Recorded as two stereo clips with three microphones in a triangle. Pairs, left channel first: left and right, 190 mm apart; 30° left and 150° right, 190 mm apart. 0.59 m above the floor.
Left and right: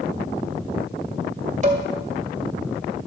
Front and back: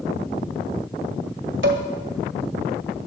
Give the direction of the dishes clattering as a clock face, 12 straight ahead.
5 o'clock.